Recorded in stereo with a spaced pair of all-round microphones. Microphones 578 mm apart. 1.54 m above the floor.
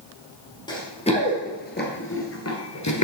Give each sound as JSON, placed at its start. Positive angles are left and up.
{"t": 0.7, "sound": "running footsteps", "side_deg": 5, "distance_m": 2.0}